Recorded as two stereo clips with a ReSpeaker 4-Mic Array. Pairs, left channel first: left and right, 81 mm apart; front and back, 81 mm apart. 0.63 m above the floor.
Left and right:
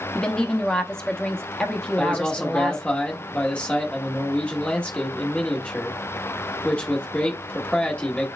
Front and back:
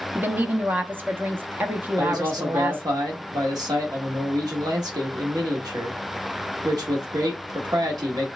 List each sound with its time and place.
0.1 s a woman speaking: 160° left, 0.7 m
2.0 s a man speaking: 165° left, 1.1 m